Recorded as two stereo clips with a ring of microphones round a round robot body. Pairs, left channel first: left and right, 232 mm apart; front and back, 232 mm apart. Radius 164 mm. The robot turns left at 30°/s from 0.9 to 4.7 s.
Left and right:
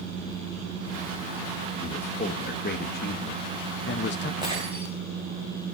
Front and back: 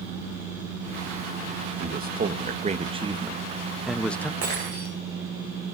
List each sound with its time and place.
1.8 s a man speaking: 155° left, 0.7 m; by 4.3 s 80° left, 0.7 m
4.4 s breaking glass: 165° left, 8 m; by 4.9 s 155° left, 8 m